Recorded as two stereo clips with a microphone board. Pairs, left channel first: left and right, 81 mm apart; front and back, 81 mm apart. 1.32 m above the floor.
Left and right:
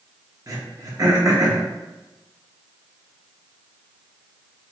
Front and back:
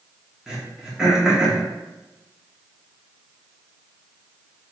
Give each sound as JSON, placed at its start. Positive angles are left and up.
{"t": 0.5, "sound": "throat clearing", "azimuth_deg": -100, "distance_m": 0.8}